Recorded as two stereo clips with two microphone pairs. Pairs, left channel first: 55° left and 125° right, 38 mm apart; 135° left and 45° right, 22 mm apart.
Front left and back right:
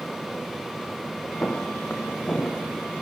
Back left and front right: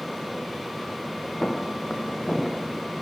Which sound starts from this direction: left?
Footsteps, at 1.4 s.